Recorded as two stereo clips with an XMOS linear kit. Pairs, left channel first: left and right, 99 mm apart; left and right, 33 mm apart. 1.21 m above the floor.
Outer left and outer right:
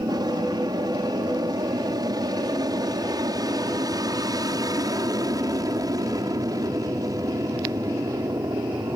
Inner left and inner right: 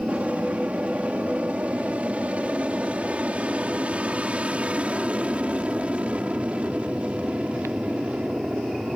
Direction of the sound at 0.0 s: 45° right (ahead or behind).